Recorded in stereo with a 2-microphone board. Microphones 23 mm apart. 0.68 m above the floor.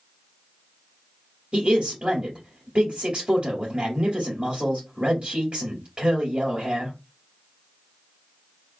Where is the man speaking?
45° right (ahead or behind), 2.5 m.